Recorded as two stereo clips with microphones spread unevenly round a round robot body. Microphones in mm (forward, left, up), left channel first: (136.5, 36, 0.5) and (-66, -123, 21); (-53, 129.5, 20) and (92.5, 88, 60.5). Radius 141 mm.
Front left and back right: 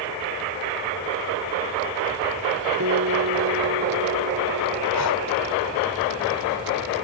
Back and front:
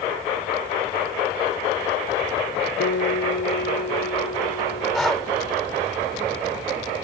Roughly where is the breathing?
Left.